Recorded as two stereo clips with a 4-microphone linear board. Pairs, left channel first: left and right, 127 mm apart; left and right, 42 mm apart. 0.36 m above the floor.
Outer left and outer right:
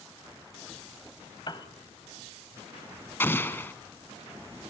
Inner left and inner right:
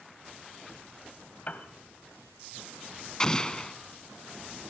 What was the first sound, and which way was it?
A piano, 40° left (ahead or behind).